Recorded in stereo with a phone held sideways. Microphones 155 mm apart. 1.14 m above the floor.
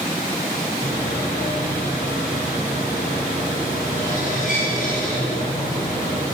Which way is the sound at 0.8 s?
60° left (ahead or behind).